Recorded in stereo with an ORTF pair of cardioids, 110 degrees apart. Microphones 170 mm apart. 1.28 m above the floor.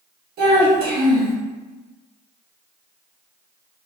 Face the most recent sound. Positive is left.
turn(degrees=-70)